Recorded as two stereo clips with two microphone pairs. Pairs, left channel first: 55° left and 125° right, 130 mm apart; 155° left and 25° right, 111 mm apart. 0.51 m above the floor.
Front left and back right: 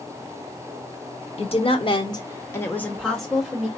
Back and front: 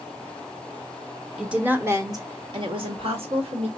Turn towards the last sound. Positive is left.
turn(degrees=-35)